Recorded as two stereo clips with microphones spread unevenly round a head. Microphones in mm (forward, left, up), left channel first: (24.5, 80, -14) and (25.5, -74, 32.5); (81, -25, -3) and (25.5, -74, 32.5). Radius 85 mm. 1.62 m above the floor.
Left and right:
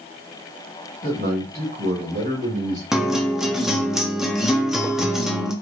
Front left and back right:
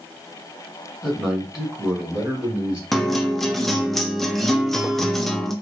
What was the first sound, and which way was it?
A man speaking, 45° right.